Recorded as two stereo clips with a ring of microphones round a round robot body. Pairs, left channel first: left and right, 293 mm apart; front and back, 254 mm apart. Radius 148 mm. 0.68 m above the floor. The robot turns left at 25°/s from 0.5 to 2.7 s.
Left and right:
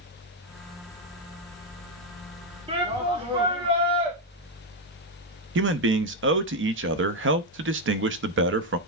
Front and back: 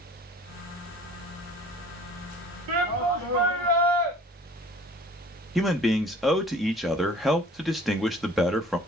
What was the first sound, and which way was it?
A shout, 160° right.